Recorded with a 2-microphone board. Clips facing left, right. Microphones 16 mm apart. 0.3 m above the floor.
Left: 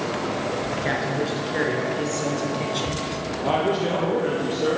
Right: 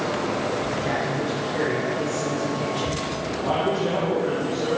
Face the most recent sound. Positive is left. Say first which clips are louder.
# left 1 dB
turn(degrees=75)  # may be behind; listen again after turning